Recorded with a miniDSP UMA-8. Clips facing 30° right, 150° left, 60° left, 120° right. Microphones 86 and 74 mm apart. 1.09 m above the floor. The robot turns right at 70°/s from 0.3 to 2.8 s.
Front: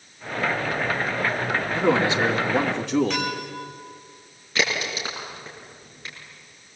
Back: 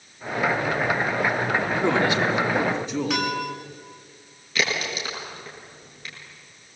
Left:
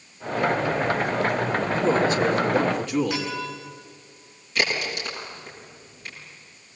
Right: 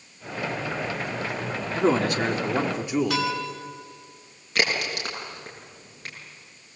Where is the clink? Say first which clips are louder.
Back 2 dB, right 3 dB; 130° right, 7 m.